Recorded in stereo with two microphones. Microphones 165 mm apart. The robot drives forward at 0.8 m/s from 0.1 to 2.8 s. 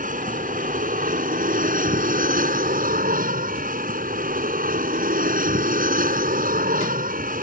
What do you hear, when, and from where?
0.0 s an aircraft: 55° right (ahead or behind); by 7.4 s 60° right (ahead or behind)